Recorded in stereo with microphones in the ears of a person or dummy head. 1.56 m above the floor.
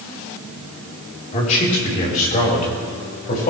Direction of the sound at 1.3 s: 35° left (ahead or behind).